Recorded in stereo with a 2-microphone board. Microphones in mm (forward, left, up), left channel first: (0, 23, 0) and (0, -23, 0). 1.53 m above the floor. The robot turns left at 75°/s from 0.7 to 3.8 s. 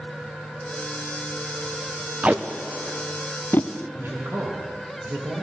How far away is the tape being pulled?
About 0.6 m.